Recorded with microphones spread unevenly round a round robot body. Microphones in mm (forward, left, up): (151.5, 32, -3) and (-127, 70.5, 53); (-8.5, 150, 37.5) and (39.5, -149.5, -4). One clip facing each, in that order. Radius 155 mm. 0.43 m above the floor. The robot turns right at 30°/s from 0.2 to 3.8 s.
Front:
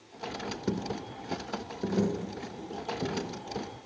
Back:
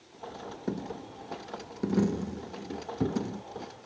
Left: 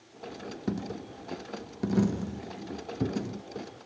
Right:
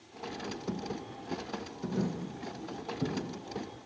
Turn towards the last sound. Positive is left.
turn(degrees=150)